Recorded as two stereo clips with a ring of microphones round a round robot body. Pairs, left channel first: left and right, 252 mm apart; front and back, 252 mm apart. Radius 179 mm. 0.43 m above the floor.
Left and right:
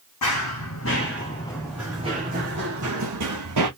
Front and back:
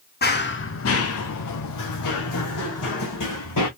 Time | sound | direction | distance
0.2 | running footsteps | 55° left | 1.2 m